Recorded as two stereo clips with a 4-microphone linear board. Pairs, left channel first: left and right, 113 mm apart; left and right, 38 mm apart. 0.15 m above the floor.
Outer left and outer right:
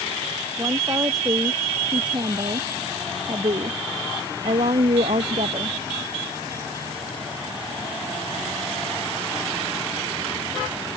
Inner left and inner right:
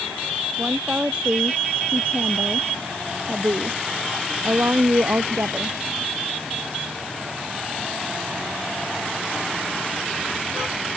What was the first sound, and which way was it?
A woman speaking, 30° right (ahead or behind).